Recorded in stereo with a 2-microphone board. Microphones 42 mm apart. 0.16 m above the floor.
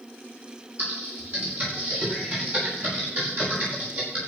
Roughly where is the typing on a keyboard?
Right.